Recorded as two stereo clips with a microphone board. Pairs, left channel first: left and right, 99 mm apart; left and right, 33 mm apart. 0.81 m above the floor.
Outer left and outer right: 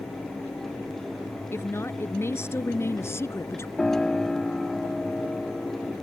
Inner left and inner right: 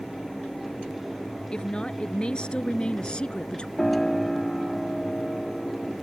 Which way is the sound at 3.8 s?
5° left (ahead or behind).